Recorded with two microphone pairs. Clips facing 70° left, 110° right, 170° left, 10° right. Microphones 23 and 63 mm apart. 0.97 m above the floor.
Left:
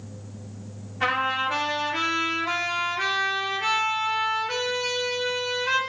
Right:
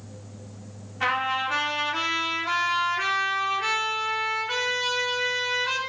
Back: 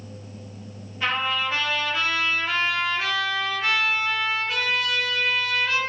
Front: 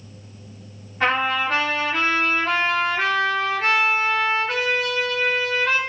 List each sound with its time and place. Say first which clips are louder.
1.0 s a trumpet: left 1 dB, front 4 dB; 30° right, 3.5 m